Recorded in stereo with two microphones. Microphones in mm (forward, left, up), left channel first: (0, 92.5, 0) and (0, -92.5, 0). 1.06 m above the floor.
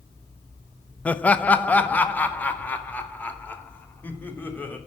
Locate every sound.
1.1 s laughter: 5° left (ahead or behind), 0.8 m; by 4.8 s 10° left (ahead or behind), 3 m